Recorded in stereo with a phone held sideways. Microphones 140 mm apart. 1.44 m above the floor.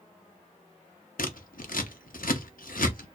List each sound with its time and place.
1.2 s scissors: 80° left, 0.6 m